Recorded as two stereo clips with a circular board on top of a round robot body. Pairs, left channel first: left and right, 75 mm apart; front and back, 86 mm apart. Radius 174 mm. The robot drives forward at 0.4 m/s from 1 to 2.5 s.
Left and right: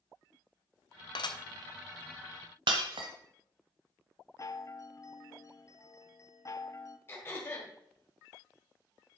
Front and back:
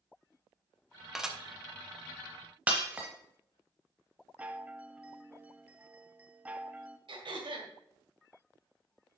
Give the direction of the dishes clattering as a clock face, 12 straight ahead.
9 o'clock.